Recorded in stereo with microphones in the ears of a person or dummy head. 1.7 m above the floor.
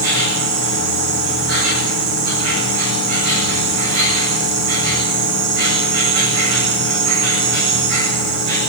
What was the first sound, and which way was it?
An insect, 65° right (ahead or behind).